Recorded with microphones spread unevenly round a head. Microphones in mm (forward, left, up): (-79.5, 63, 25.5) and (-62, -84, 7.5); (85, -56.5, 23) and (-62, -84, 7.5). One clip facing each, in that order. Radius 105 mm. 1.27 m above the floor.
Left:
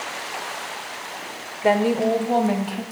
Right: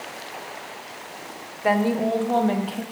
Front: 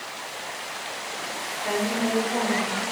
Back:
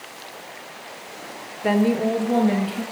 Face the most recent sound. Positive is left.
turn(degrees=-175)